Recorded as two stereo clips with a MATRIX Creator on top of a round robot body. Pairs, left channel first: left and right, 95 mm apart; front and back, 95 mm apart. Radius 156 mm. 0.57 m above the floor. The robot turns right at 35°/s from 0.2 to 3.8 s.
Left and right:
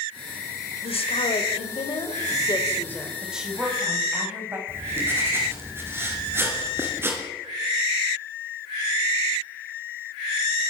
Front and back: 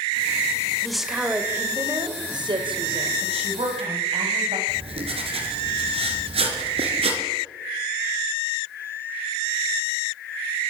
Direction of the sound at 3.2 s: Straight behind.